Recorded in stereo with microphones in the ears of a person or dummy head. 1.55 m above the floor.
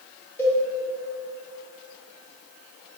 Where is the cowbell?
15° left (ahead or behind), 1.9 m.